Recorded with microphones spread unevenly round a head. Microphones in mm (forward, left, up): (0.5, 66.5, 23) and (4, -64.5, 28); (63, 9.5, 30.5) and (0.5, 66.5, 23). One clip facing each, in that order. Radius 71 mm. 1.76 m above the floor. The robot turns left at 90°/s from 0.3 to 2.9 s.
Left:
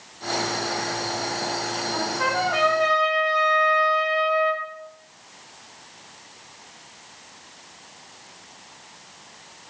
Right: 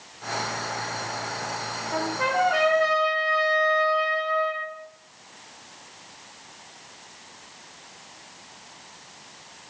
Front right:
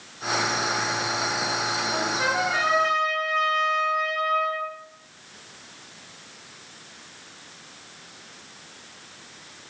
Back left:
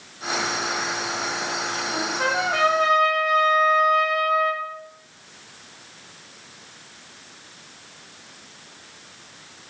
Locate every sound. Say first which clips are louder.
1.9 s a trumpet: right 2 dB, back left 2 dB; 115° right, 1.3 m; by 4.7 s 155° left, 1.3 m